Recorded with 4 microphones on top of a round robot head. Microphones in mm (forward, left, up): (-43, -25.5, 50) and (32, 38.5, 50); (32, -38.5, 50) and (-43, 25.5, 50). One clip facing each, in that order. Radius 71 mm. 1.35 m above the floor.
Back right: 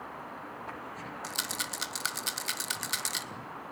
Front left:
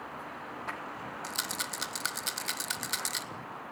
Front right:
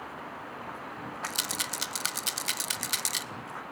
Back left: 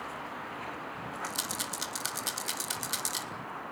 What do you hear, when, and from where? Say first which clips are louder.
1.2 s a rattle: back right 1 dB, front right 1 dB; 50° right, 1.0 m